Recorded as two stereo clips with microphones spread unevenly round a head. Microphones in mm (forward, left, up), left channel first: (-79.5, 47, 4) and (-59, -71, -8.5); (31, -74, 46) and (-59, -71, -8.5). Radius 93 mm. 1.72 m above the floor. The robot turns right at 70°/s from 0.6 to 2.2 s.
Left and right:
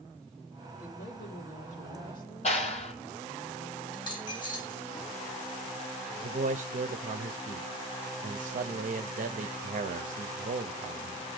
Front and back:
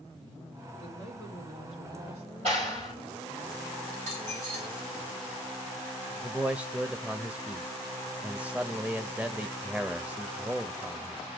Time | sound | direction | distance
0.8 | a woman speaking | 55° left | 3.5 m
2.4 | a clap | 130° left | 5 m
3.9 | a dropped coin | 145° left | 6 m
6.2 | a man speaking | 100° right | 0.7 m